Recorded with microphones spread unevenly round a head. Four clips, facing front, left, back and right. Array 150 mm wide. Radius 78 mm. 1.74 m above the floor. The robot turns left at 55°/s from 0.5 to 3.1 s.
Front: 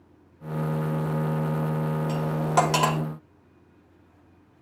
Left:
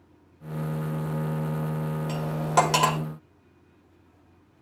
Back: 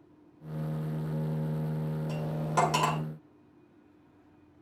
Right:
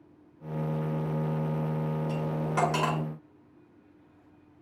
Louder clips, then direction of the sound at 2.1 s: Left 5 dB, front 7 dB; 150° left.